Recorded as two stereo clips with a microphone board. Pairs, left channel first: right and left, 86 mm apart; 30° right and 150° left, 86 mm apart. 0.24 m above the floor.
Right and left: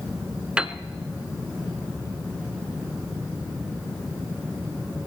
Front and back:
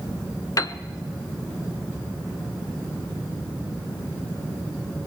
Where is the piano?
15° left, 0.5 m.